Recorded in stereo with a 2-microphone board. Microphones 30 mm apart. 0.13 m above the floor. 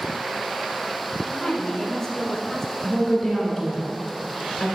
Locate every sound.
1.2 s a woman speaking: 20° left (ahead or behind), 1.0 m
2.8 s a woman speaking: 5° left (ahead or behind), 1.6 m